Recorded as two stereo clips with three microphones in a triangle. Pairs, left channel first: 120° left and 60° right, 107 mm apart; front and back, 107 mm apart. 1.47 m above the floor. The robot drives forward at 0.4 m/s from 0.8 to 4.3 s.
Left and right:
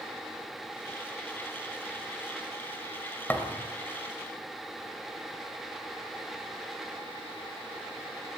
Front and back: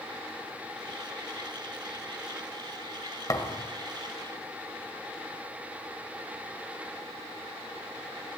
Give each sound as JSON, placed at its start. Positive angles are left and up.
{"t": 3.3, "sound": "a thud", "azimuth_deg": 50, "distance_m": 2.0}